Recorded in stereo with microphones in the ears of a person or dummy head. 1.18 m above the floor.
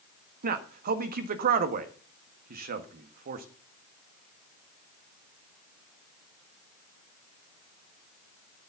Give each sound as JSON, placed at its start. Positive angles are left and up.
{"t": 0.4, "sound": "a man speaking", "side_deg": -45, "distance_m": 1.5}